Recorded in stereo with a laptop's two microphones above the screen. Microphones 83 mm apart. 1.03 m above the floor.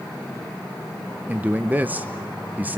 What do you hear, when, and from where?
1.3 s a man speaking: 20° right (ahead or behind), 0.7 m